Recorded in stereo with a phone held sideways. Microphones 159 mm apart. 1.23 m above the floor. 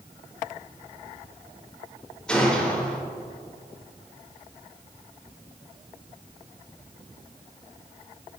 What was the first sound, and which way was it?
A gunshot, 5° left (ahead or behind).